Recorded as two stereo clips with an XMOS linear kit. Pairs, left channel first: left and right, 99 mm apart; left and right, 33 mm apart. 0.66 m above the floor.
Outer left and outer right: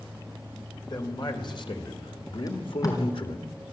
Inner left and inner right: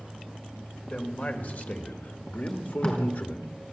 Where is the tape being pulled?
35° left (ahead or behind), 4.5 m.